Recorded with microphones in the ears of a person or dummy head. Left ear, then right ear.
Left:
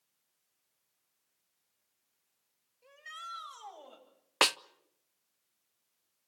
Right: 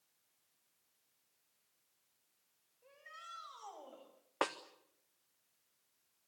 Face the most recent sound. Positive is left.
turn(degrees=70)  # may be behind; listen again after turning